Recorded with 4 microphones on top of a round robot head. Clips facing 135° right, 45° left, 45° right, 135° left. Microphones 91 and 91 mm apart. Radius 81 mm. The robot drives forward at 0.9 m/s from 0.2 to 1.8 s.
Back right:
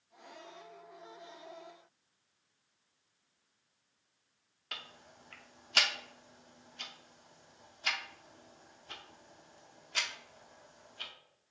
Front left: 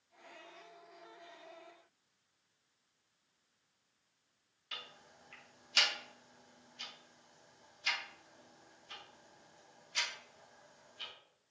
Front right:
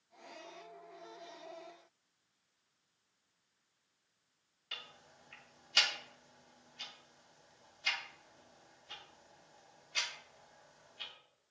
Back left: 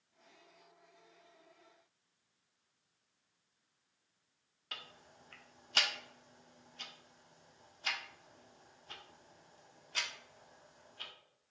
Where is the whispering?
I don't hear whispering.